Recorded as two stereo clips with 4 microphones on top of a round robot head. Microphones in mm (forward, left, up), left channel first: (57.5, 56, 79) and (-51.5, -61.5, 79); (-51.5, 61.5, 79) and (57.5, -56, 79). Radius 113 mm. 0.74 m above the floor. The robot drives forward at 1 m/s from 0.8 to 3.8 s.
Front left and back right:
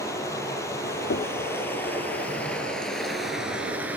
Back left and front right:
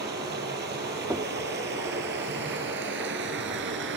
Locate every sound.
0.0 s running water: 25° right, 5.5 m; by 4.0 s 50° right, 3 m
1.1 s knocking: 25° left, 0.8 m; by 1.3 s 35° left, 0.6 m